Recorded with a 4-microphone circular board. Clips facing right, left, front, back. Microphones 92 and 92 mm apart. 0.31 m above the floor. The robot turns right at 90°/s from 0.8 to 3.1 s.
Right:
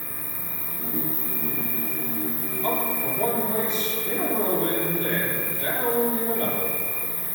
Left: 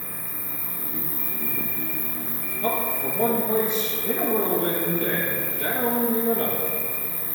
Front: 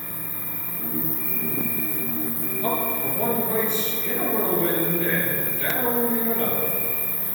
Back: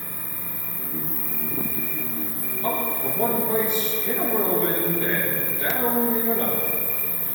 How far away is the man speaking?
About 6.5 m.